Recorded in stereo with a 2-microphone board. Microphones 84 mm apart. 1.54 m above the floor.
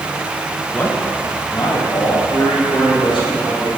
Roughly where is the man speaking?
Centre.